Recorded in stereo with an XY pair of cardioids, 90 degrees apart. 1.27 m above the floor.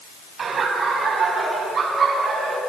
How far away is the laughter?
About 7.5 m.